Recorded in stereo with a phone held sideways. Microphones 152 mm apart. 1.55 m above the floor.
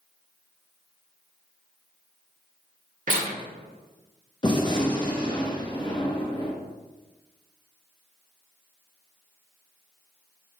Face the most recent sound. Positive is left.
turn(degrees=30)  # may be behind; listen again after turning